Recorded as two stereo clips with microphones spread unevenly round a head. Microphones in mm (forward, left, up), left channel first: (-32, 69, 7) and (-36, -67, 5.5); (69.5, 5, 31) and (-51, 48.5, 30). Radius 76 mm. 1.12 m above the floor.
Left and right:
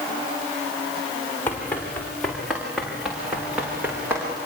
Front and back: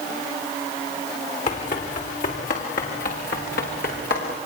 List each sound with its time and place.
1.5 s running footsteps: 10° left, 5.5 m; by 4.4 s 15° right, 7.5 m